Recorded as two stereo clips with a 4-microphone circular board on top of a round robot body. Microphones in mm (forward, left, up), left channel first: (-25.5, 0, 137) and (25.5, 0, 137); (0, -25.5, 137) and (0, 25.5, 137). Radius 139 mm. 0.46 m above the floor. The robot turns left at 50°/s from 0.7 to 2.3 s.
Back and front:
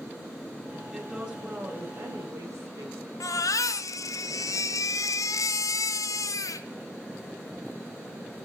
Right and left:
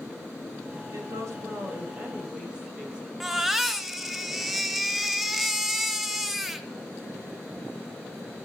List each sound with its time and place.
0.9 s a woman speaking: 85° left, 4 m; by 3.1 s 15° left, 4 m
3.2 s a baby crying: 175° left, 0.8 m